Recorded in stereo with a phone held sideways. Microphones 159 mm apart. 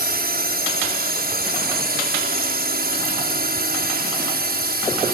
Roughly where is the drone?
Right.